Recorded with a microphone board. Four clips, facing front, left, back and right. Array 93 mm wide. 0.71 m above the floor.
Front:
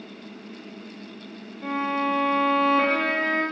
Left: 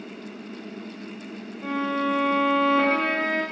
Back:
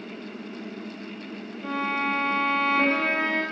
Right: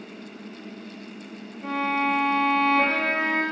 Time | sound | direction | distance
1.6 | a violin | 40° left | 2 m